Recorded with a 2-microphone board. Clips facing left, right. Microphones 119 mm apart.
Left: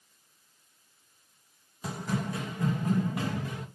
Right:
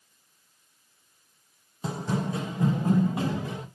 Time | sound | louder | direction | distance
1.8 | running footsteps | right 3 dB | 25° right (ahead or behind) | 0.9 m